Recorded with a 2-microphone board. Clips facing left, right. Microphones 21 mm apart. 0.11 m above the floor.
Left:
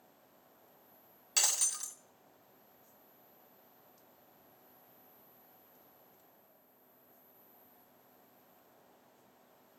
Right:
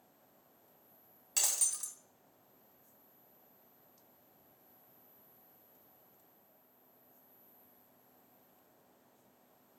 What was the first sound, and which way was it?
Breaking glass, 15° left (ahead or behind).